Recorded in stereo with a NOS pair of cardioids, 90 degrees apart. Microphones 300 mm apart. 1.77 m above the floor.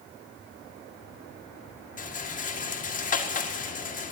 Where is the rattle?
25° left, 1.9 m.